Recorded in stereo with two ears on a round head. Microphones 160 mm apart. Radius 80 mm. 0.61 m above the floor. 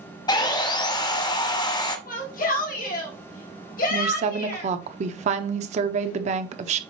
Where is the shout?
50° left (ahead or behind), 2 m.